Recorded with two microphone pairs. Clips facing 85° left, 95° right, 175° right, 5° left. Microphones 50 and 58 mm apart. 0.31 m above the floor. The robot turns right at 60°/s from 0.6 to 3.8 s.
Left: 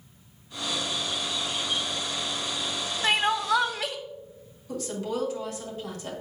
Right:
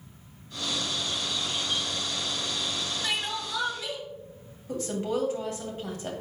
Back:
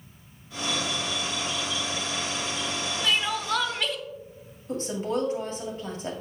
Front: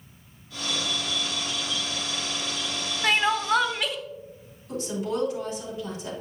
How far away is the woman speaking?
About 1.9 m.